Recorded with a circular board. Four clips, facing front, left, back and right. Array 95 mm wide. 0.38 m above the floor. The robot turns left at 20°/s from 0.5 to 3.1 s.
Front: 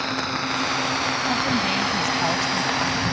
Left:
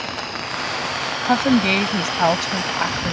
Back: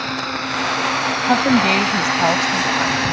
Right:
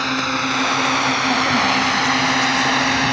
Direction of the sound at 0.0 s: 105° right.